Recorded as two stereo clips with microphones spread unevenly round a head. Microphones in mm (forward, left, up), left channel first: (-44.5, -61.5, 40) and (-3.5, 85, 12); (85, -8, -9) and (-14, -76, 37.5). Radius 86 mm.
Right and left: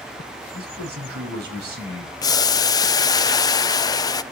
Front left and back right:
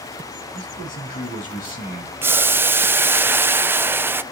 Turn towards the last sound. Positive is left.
turn(degrees=-45)